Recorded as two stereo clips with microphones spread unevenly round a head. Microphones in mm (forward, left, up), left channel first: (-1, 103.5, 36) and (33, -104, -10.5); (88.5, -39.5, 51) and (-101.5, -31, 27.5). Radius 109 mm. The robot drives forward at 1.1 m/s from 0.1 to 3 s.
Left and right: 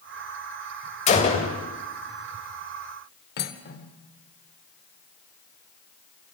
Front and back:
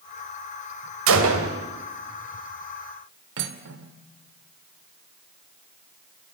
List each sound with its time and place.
1.1 s a gunshot: 160° left, 3 m; by 1.6 s 165° left, 3.5 m
3.4 s cutlery clinking: 150° left, 2 m